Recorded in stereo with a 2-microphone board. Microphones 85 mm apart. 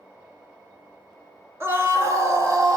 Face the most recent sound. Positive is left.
turn(degrees=-45)  # may be behind; listen again after turning